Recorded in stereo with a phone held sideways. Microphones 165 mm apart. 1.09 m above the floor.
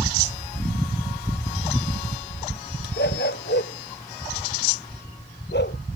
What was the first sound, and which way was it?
A dog barking, 80° left.